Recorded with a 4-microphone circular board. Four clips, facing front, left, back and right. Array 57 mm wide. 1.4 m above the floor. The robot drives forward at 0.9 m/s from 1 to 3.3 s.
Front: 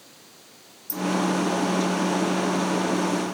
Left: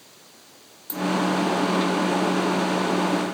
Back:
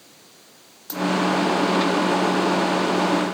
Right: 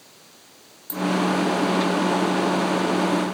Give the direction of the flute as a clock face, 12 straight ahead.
I don't hear a flute.